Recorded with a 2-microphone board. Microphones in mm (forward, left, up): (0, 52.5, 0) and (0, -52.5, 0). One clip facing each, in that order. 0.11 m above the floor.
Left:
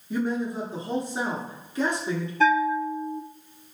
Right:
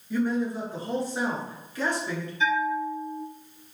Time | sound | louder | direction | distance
0.1 | a man speaking | right 1 dB | 20° left (ahead or behind) | 1.1 m
2.4 | a bell | left 4 dB | 60° left (ahead or behind) | 0.5 m